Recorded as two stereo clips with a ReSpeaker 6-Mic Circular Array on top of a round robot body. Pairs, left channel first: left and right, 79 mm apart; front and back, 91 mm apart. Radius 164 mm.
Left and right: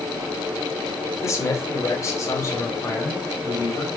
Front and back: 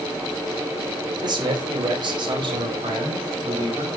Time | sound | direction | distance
1.2 | a man speaking | 140° left | 3 m